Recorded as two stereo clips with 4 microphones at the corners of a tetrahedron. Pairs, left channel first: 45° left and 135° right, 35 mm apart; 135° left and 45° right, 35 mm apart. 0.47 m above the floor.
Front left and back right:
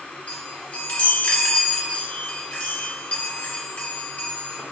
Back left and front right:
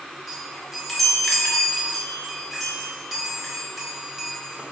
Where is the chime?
40° left, 0.9 m.